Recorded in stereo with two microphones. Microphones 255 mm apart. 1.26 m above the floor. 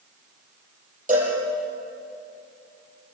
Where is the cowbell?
30° right (ahead or behind), 7 m.